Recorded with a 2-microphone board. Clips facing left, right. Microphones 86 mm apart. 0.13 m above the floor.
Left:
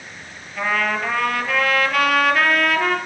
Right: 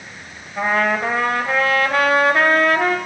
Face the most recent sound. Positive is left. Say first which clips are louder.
# right 3 dB
turn(degrees=-35)  # may be behind; listen again after turning